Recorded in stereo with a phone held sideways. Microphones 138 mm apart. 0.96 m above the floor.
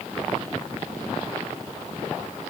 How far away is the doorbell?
I don't hear a doorbell.